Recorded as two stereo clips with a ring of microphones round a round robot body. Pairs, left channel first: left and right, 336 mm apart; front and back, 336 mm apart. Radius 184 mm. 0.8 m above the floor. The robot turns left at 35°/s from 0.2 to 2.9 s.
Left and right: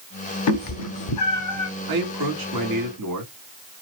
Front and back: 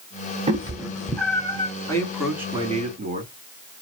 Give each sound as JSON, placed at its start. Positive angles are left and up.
{"t": 0.5, "sound": "a cat meowing", "azimuth_deg": 110, "distance_m": 0.5}
{"t": 1.9, "sound": "a man speaking", "azimuth_deg": -80, "distance_m": 2.0}